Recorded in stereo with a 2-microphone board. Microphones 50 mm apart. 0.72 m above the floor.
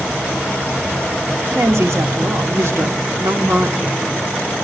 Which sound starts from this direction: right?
A woman speaking, at 1.6 s.